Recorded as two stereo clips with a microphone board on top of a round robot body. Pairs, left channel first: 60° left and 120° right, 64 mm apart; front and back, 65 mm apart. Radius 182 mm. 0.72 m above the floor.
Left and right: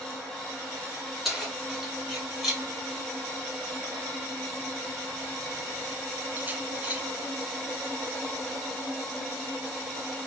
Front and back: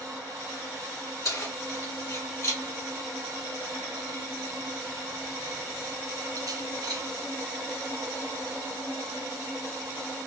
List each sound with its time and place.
1.2 s keys jangling: 35° right, 2.5 m; by 7.0 s 170° left, 1.1 m